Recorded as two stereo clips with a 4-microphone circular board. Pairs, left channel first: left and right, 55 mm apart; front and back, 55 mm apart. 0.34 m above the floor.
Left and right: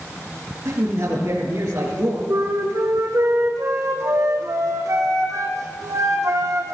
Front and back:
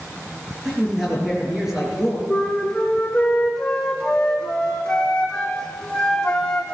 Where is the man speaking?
100° right, 5 m.